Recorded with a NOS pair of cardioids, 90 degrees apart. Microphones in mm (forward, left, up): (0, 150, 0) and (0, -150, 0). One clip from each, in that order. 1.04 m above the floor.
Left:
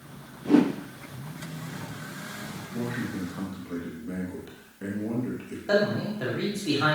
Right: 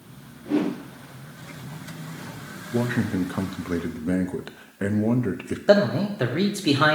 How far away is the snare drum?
No snare drum in this recording.